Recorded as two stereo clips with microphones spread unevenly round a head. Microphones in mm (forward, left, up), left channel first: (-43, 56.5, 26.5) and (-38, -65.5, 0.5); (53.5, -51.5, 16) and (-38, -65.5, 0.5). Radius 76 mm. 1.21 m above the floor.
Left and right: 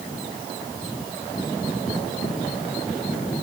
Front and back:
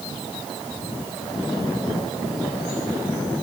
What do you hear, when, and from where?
Only background noise.